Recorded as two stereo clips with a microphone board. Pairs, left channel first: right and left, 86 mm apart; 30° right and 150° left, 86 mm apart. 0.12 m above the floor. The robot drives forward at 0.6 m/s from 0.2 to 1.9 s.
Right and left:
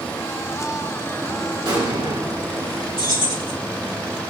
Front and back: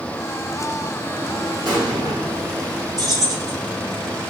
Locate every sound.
1.6 s an explosion: 115° left, 2.5 m
3.0 s keys jangling: 110° left, 3.5 m